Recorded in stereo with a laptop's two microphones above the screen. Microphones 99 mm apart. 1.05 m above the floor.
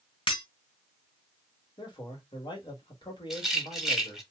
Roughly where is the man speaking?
Left.